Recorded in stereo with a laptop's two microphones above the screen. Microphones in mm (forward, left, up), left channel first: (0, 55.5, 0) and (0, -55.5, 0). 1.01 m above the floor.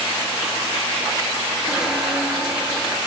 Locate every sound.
1.7 s a squeak: 5° right (ahead or behind), 7 m